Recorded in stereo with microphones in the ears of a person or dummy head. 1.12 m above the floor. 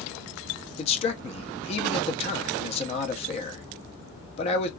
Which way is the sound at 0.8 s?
40° left (ahead or behind).